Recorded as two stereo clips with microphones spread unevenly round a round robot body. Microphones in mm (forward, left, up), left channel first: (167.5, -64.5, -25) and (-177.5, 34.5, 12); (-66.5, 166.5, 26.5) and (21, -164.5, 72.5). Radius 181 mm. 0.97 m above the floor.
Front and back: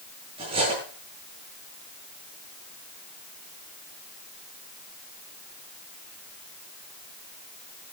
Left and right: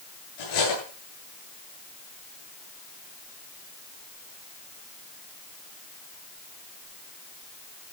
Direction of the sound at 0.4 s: 90° left.